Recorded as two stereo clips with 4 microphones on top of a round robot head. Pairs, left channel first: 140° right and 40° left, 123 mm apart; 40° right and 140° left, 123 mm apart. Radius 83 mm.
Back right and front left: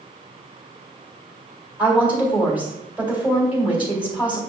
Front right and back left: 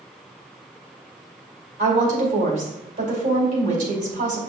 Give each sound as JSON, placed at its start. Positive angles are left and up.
{"t": 1.8, "sound": "a woman speaking", "azimuth_deg": 120, "distance_m": 2.5}